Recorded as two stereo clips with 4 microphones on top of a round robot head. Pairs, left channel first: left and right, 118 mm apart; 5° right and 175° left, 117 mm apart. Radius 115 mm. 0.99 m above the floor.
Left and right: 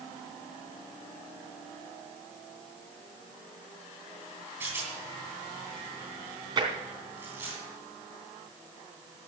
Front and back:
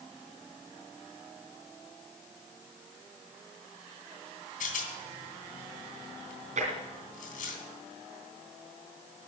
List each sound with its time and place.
4.6 s a rattle: 15° right, 3 m
6.6 s tapping: 140° right, 3 m